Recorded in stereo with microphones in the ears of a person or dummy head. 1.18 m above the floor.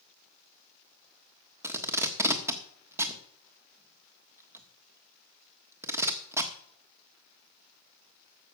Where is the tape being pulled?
10° right (ahead or behind), 1.2 m.